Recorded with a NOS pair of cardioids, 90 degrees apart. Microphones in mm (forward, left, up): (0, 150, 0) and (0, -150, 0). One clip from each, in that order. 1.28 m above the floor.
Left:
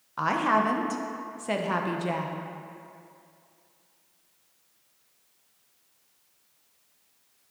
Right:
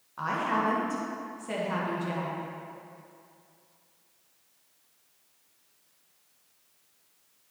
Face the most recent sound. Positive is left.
turn(degrees=45)